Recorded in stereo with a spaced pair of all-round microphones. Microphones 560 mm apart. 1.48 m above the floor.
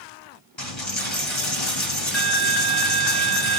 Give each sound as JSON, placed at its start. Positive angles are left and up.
{"t": 0.6, "sound": "a dropped coin", "side_deg": 55, "distance_m": 2.0}